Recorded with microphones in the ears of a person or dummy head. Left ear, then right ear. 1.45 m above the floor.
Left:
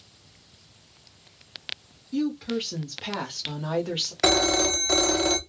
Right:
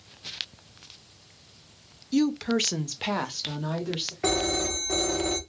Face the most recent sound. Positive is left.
turn(degrees=60)  # may be behind; listen again after turning